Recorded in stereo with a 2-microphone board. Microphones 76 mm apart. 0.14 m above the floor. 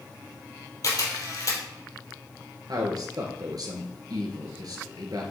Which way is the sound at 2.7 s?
60° right (ahead or behind).